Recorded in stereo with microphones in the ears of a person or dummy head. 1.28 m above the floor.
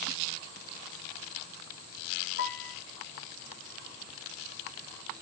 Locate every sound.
2.4 s a piano: 60° left (ahead or behind), 5 m